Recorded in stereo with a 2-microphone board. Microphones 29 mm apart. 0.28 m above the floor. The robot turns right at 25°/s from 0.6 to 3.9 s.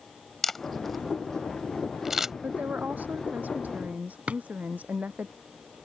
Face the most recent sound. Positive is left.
turn(degrees=-55)  # may be behind; listen again after turning